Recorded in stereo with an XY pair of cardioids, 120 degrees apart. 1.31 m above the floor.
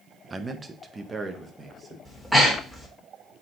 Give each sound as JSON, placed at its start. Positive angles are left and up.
{"t": 0.3, "sound": "a man speaking", "azimuth_deg": -20, "distance_m": 1.0}
{"t": 2.0, "sound": "breathing", "azimuth_deg": 0, "distance_m": 3.0}